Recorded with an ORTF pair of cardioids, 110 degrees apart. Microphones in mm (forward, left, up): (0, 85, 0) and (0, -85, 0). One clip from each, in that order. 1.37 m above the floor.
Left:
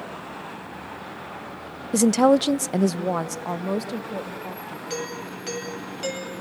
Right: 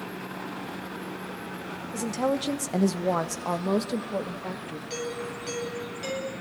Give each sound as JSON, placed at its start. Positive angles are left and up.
{"t": 1.9, "sound": "a woman speaking", "azimuth_deg": 65, "distance_m": 0.8}
{"t": 4.9, "sound": "a doorbell", "azimuth_deg": 30, "distance_m": 9.0}